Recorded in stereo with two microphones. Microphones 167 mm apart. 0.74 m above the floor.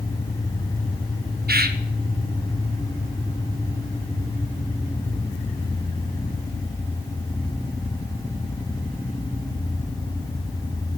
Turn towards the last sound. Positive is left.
turn(degrees=-65)  # may be behind; listen again after turning